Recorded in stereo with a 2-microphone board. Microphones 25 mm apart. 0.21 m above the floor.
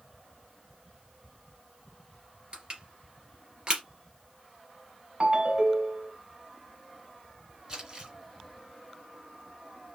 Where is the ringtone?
50° right (ahead or behind), 1.0 m.